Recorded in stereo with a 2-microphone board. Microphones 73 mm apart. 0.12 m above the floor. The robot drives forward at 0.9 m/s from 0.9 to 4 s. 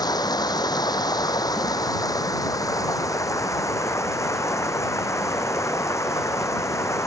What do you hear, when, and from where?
0.0 s running water: 75° left (ahead or behind); by 7.1 s 45° left (ahead or behind)